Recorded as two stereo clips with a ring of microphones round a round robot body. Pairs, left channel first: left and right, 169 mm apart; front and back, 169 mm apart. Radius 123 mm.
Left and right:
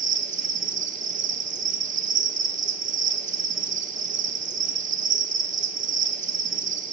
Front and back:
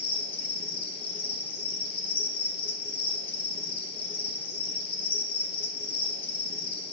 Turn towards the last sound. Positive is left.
turn(degrees=-55)